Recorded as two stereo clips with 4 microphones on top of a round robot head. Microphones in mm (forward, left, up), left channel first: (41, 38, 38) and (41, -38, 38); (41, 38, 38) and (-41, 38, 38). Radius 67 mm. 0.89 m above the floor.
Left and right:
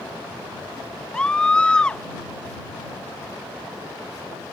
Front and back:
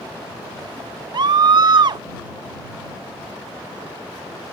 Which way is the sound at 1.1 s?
170° left.